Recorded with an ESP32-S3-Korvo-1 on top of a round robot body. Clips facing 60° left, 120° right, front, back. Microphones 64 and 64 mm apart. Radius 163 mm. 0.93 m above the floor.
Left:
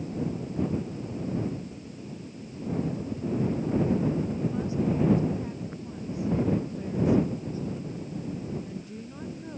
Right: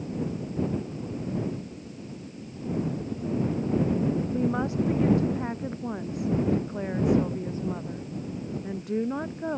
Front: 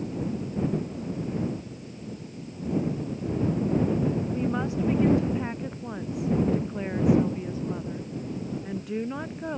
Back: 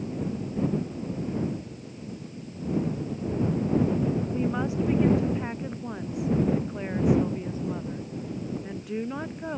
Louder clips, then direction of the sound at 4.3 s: Right 3 dB, even; 90° right.